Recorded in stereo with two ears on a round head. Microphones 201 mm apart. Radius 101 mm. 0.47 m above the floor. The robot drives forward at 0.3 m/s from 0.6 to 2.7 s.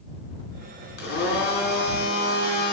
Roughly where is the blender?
Left.